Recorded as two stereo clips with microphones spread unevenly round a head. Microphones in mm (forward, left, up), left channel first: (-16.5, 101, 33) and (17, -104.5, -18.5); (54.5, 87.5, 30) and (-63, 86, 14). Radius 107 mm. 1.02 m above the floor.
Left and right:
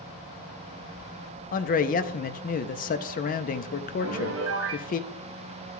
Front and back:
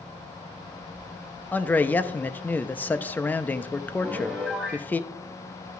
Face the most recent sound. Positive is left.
turn(degrees=-95)